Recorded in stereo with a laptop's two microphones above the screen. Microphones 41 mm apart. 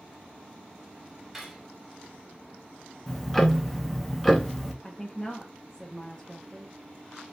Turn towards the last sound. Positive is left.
turn(degrees=15)  # may be behind; listen again after turning